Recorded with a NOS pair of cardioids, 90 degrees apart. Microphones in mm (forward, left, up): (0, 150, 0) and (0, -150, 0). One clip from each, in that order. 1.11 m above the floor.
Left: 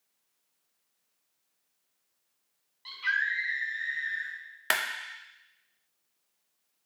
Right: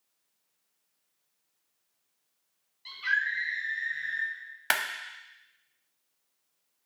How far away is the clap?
About 0.6 m.